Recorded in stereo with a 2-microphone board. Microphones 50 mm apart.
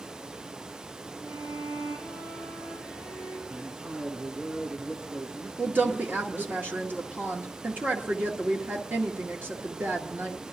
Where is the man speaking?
25° right (ahead or behind), 3 m.